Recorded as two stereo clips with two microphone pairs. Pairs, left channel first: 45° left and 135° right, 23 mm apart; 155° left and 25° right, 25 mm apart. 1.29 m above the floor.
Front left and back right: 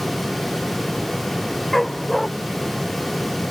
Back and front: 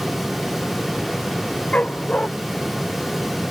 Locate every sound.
1.7 s a dog barking: 130° left